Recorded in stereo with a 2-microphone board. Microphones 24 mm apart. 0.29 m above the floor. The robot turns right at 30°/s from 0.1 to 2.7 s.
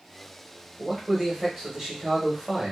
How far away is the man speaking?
About 1.0 m.